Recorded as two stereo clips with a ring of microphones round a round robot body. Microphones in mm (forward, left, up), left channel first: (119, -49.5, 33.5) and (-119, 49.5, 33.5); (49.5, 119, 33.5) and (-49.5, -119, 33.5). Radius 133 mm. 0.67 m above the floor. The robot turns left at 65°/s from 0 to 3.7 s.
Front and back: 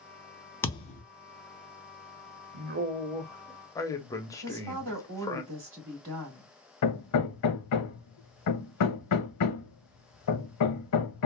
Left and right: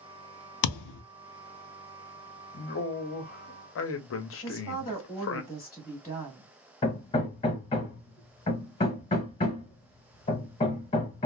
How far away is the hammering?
About 0.8 m.